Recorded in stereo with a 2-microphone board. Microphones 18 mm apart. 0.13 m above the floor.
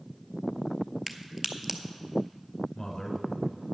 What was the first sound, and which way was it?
A crack, 15° right (ahead or behind).